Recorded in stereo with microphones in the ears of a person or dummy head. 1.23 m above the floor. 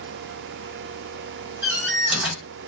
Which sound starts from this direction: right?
A door slam, at 1.6 s.